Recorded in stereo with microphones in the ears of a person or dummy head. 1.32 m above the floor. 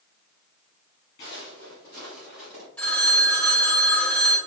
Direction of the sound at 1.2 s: 30° left (ahead or behind).